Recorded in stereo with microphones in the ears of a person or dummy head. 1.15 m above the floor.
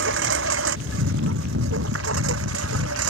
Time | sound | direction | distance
0.0 | a lawn mower | 65° right (ahead or behind) | ?